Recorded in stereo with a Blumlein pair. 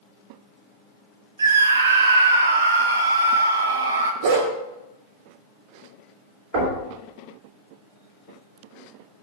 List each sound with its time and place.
1.4 s a scream: 70° right, 0.5 m
4.2 s a dog barking: 55° right, 1.5 m
6.5 s knocking: 55° right, 3.5 m